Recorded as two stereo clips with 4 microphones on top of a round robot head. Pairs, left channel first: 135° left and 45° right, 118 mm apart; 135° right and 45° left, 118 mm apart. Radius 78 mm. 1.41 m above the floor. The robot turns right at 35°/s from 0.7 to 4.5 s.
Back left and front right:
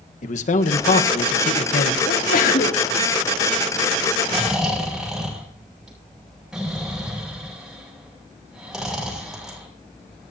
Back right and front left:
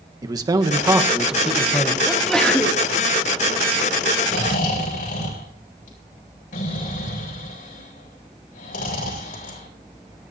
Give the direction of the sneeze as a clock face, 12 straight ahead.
8 o'clock.